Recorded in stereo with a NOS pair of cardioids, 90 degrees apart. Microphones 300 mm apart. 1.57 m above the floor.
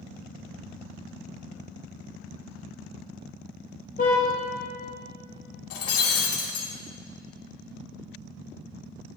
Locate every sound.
4.0 s a car horn: 30° left, 4.5 m
5.7 s breaking glass: 55° left, 3 m